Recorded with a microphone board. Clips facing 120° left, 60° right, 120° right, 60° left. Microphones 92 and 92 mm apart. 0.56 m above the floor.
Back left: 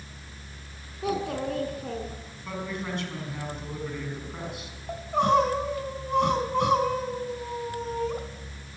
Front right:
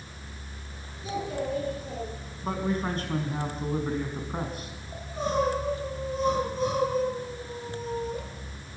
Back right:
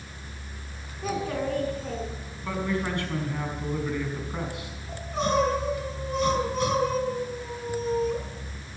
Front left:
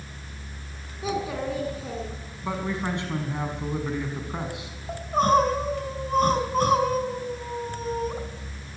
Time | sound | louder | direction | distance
1.0 | a child speaking | back left 3 dB, even | 145° left | 5.5 m
2.4 | a man speaking | front right 5 dB, even | 10° right | 5.5 m
4.9 | crying | back left 8 dB, front left 6 dB | 105° left | 4 m